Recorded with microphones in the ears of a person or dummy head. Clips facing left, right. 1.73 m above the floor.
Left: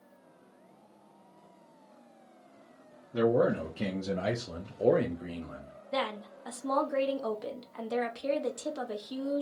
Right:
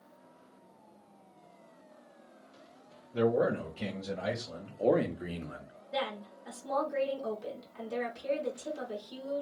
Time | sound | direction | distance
3.1 | a man speaking | 70° left (ahead or behind) | 1.1 m
5.9 | a woman speaking | 65° left (ahead or behind) | 1.1 m